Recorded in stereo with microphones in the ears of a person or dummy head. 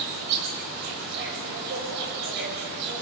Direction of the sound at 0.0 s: 60° right (ahead or behind).